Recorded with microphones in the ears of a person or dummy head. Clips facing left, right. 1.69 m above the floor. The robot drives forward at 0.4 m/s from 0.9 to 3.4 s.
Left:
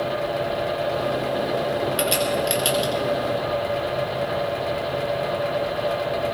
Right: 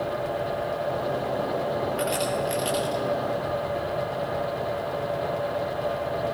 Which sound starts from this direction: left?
A crack, at 2.0 s.